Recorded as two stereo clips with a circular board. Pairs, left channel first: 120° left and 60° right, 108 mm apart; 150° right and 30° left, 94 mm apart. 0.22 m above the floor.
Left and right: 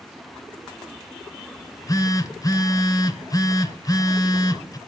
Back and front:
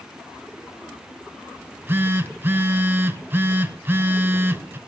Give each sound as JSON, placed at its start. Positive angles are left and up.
{"t": 1.6, "sound": "a phone buzzing", "azimuth_deg": 85, "distance_m": 0.9}